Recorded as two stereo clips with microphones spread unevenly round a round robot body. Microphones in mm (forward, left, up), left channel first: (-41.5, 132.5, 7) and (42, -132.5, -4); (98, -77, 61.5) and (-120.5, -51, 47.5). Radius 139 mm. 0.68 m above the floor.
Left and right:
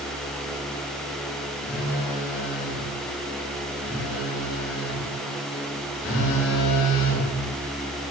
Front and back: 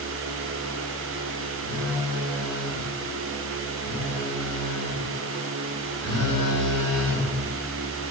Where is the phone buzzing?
60° left, 2.5 m.